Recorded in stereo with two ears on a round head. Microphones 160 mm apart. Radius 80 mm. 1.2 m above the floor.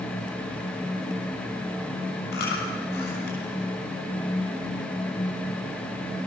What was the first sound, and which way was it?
Chewing, 55° left (ahead or behind).